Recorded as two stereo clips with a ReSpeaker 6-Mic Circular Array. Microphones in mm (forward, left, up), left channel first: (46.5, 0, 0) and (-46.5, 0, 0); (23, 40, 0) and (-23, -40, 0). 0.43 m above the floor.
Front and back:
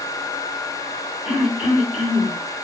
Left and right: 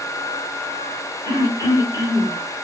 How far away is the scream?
No scream in this recording.